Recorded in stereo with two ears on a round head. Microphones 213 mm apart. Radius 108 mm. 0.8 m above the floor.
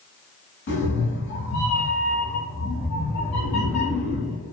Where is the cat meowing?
50° left (ahead or behind), 1.1 m.